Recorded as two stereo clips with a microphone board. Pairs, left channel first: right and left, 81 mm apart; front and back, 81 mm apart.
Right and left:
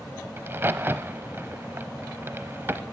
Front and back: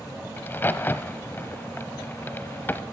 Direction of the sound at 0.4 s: 45° left.